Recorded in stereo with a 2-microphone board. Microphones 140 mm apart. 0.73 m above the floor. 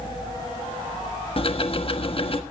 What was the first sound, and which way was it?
Ticking, 45° left (ahead or behind).